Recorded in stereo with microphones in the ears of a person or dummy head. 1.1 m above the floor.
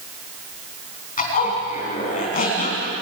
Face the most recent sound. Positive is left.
turn(degrees=40)  # may be behind; listen again after turning